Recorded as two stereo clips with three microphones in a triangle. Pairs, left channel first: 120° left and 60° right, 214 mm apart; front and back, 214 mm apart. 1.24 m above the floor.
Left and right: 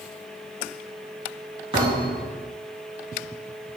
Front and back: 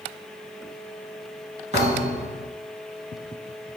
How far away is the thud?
About 3.5 m.